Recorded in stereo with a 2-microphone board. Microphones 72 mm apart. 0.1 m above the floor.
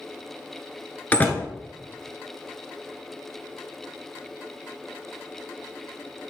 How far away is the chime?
No chime in this recording.